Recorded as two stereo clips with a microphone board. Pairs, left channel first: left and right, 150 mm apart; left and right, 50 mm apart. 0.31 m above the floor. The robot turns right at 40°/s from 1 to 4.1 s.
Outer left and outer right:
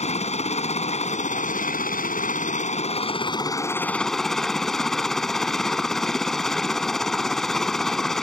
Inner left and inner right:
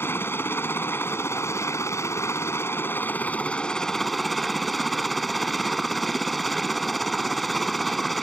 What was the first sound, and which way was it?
A helicopter, 55° left.